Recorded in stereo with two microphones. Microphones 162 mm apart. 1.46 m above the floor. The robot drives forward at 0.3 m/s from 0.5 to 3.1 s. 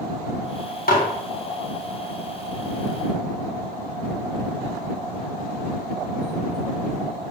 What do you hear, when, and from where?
0.9 s dishes clattering: 65° left (ahead or behind), 1.7 m